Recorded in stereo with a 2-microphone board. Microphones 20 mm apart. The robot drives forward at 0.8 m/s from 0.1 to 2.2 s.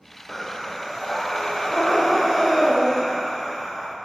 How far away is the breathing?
About 3 m.